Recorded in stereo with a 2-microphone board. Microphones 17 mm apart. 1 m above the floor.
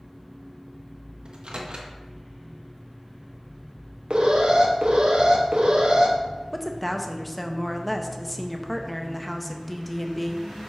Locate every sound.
1.2 s a microwave: 65° right (ahead or behind), 0.9 m
4.1 s an alarm: 75° right (ahead or behind), 1.1 m
6.5 s a woman speaking: 5° left (ahead or behind), 0.7 m